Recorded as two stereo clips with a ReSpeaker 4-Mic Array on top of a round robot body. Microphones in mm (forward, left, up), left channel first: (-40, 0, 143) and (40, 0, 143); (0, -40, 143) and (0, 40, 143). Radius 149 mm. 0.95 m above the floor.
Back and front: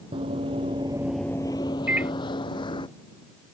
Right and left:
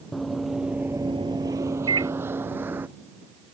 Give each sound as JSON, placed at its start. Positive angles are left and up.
{"t": 0.1, "sound": "running footsteps", "azimuth_deg": -5}
{"t": 1.9, "sound": "a microwave", "azimuth_deg": 70}